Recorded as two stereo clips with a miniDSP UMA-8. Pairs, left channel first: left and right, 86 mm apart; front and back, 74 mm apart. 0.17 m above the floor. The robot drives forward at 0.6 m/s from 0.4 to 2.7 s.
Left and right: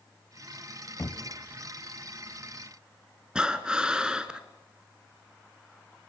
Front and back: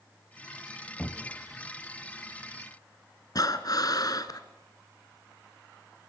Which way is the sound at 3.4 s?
10° right.